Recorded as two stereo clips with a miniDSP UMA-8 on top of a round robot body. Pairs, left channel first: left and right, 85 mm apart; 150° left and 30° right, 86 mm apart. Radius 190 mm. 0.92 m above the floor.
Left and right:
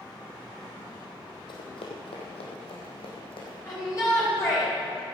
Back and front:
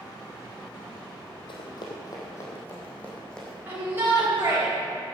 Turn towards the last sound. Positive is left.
turn(degrees=35)